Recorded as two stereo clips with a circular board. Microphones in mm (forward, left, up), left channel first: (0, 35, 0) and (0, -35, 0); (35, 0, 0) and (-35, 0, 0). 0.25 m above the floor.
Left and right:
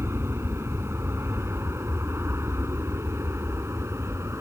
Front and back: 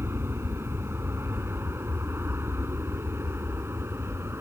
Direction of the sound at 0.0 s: 135° right.